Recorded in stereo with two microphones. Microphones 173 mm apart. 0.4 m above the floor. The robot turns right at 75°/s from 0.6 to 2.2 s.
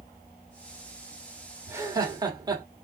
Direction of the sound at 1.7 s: 15° right (ahead or behind).